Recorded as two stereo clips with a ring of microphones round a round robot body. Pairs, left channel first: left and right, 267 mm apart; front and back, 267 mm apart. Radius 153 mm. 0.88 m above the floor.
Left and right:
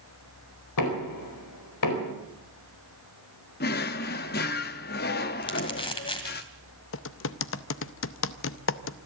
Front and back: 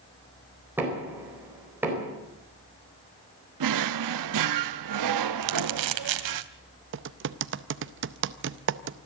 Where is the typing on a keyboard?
135° left, 0.6 m.